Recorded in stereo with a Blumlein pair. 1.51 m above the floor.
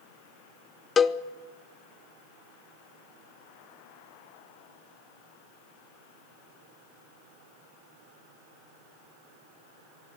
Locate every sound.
1.0 s a cowbell: 20° left, 0.6 m